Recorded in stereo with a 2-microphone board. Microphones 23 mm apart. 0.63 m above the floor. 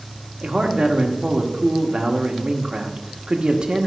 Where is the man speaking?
45° right (ahead or behind), 1.2 m.